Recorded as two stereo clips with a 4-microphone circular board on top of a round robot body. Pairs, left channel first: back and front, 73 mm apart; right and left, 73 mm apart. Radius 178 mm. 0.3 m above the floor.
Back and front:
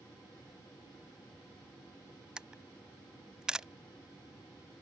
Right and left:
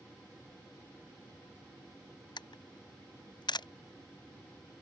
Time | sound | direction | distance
2.4 | a camera shutter | 80° right | ?